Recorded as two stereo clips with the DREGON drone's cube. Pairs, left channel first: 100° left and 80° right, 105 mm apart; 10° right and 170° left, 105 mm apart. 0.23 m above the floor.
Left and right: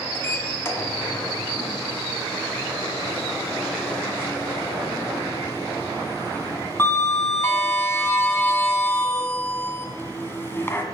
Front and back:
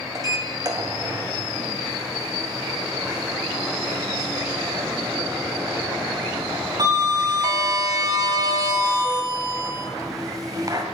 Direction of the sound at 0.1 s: 150° left.